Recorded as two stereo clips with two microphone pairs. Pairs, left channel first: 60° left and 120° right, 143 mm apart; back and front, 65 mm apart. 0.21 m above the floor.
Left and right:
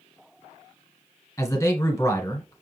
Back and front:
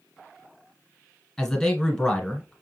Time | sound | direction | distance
1.4 | a man speaking | 105° left | 1.6 m